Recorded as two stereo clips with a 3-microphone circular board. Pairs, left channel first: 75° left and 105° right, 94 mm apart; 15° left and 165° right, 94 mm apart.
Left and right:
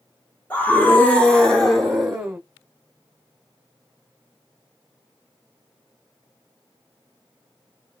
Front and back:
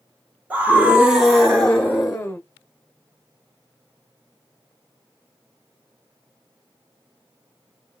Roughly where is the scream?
Behind left.